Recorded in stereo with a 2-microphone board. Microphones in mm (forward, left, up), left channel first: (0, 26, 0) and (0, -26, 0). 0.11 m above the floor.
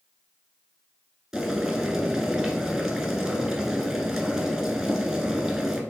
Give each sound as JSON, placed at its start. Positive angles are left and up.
{"t": 1.3, "sound": "boiling", "side_deg": -10, "distance_m": 1.3}